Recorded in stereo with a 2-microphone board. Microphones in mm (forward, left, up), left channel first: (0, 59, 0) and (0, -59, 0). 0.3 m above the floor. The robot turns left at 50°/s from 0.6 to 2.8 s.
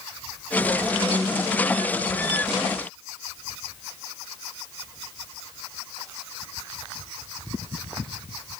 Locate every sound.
Only background noise.